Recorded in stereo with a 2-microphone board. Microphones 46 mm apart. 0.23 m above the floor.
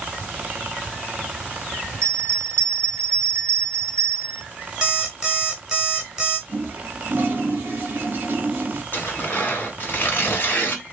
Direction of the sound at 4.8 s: 15° right (ahead or behind).